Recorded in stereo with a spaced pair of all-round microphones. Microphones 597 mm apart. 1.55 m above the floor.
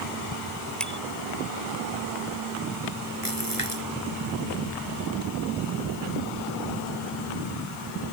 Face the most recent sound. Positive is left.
turn(degrees=65)  # may be behind; listen again after turning